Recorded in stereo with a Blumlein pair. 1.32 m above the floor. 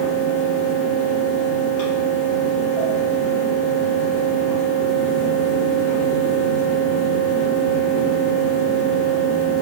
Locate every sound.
0.0 s a fan: 35° left, 1.7 m